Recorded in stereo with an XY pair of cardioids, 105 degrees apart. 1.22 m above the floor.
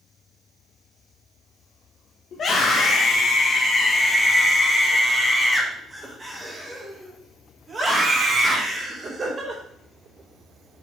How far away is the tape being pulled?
No tape being pulled in this recording.